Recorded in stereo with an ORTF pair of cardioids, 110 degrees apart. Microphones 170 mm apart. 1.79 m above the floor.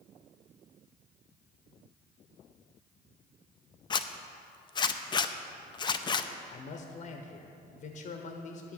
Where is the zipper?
25° left, 0.6 m.